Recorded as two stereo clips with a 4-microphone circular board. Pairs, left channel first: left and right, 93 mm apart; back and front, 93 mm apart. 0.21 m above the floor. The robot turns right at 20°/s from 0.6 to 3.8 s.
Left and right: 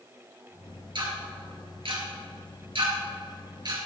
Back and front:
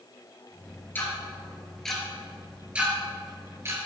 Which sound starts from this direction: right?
Ticking, at 0.9 s.